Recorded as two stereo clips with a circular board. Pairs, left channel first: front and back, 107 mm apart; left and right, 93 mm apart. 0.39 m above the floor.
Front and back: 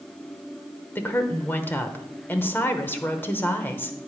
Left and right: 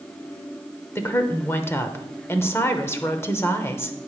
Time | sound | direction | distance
0.9 | a woman speaking | 50° left | 0.8 m